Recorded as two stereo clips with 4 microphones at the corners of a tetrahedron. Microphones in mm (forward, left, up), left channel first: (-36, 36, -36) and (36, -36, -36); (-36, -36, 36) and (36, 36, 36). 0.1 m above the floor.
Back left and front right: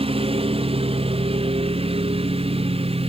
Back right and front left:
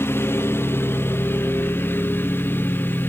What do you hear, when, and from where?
0.0 s a lawn mower: 65° right